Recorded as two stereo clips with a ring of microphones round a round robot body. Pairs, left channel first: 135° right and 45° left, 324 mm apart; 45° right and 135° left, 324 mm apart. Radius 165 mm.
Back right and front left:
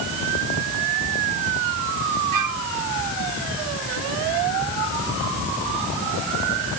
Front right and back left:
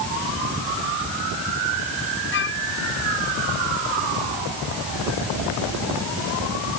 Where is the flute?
10° left.